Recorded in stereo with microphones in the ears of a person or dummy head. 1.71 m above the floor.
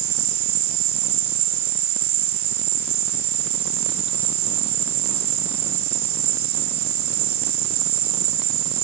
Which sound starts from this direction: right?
An insect, at 0.0 s.